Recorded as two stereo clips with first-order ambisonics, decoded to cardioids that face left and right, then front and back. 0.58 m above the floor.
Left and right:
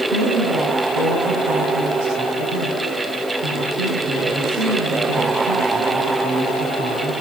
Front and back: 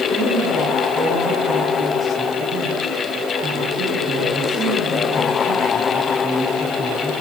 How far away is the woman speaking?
About 5.5 m.